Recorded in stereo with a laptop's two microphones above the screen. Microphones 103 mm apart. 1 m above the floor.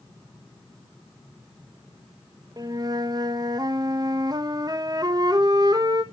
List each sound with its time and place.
2.6 s a flute: 40° right (ahead or behind), 1.1 m